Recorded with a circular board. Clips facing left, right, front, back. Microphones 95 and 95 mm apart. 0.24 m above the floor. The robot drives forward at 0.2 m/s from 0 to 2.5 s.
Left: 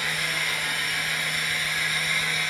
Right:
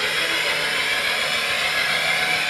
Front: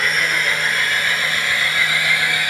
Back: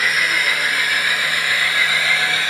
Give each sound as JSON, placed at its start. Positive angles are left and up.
{"t": 0.0, "sound": "an engine running", "azimuth_deg": -95, "distance_m": 1.6}